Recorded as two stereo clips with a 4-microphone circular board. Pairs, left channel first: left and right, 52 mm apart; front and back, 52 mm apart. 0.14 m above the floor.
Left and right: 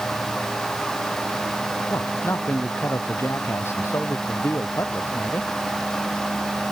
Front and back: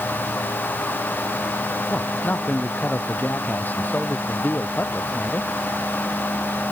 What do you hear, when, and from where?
1.9 s a man speaking: 55° left